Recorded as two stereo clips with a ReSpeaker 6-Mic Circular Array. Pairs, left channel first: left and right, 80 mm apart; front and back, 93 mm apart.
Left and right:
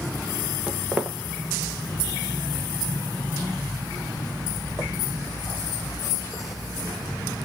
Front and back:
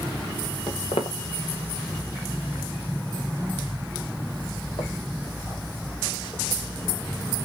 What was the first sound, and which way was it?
Footsteps, 10° right.